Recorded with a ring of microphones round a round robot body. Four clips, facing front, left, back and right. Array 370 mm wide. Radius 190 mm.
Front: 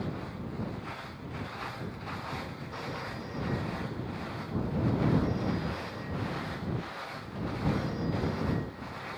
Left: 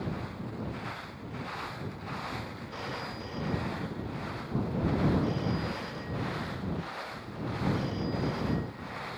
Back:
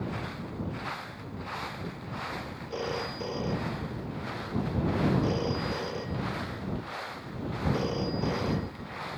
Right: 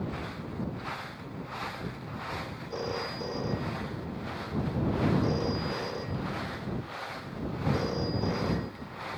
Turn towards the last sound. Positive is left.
turn(degrees=-140)